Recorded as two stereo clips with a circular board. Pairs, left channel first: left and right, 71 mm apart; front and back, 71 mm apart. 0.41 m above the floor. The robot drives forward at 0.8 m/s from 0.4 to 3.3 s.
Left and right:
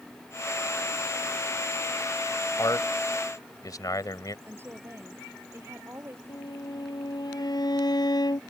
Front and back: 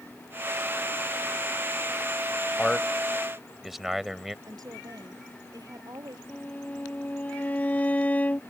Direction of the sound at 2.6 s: 80° left.